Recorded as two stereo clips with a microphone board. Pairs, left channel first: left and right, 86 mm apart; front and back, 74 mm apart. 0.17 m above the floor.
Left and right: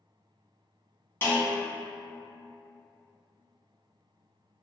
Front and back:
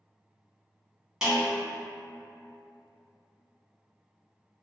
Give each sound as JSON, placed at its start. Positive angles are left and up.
{"t": 1.2, "sound": "a snare drum", "azimuth_deg": 110, "distance_m": 1.3}